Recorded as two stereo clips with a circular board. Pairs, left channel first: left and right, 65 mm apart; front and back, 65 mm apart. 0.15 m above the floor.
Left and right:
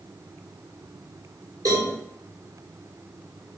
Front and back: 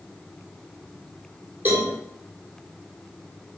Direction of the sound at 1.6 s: 120° right.